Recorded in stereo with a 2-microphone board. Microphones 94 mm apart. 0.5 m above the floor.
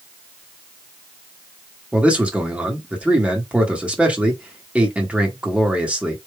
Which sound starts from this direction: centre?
A man speaking, at 1.9 s.